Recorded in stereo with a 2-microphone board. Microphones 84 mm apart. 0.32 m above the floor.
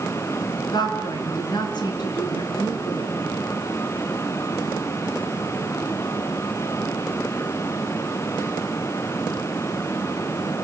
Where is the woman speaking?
60° left (ahead or behind), 4 m.